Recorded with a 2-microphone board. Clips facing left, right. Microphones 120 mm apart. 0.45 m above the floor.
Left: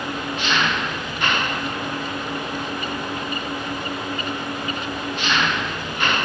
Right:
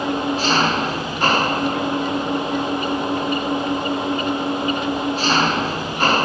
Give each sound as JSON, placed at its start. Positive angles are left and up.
{"t": 0.0, "sound": "an engine running", "side_deg": -35}